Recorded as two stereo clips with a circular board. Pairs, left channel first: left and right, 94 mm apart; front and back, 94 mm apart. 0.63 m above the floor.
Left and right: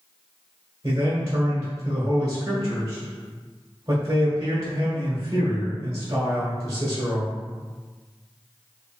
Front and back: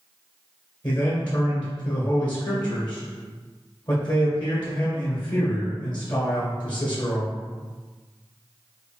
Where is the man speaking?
40° right, 1.7 m.